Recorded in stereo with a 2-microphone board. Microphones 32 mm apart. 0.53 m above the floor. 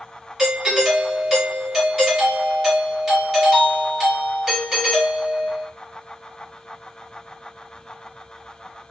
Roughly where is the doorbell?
Centre.